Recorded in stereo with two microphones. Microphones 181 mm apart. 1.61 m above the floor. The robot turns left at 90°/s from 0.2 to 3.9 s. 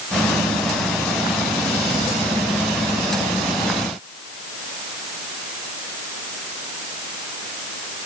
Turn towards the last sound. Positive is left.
No sound to turn to.